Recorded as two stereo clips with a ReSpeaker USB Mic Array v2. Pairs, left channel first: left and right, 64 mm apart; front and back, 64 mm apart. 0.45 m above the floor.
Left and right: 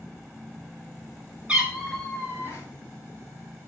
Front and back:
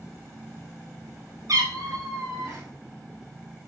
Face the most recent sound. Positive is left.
turn(degrees=140)